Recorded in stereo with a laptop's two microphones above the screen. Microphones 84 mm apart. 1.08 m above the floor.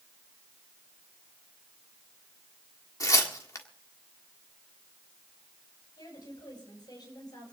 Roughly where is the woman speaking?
Left.